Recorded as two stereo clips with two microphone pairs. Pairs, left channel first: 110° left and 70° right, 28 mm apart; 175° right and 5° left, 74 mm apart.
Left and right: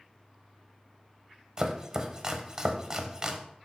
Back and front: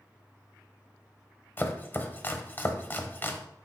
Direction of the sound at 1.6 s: 125° right.